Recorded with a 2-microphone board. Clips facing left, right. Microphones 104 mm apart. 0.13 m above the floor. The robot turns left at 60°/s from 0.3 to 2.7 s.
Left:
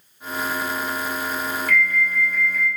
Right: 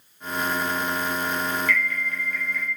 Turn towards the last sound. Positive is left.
turn(degrees=-10)